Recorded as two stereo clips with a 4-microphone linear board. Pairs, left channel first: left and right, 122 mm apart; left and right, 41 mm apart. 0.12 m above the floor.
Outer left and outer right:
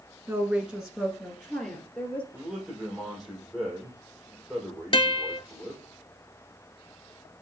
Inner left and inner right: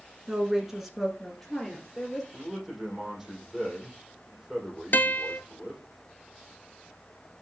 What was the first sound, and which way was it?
A woman speaking, 15° right (ahead or behind).